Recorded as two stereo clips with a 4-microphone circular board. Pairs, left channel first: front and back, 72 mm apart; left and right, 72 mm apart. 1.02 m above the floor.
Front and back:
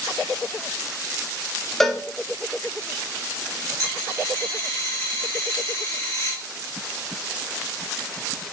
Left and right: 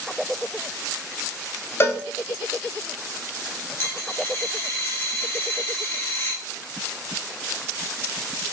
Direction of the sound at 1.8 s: 80° left.